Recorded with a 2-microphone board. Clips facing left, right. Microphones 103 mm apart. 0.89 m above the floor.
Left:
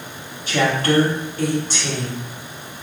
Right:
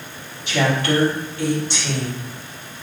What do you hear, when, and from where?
0.5 s a woman speaking: 40° left (ahead or behind), 1.3 m